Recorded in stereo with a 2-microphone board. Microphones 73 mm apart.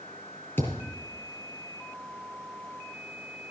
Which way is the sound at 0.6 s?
30° left (ahead or behind).